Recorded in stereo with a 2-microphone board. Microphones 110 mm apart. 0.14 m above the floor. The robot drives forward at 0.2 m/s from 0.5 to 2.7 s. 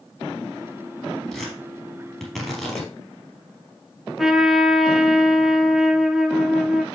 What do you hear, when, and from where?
1.3 s tearing paper: centre (ahead or behind), 3.5 m
4.2 s a trumpet: centre (ahead or behind), 0.6 m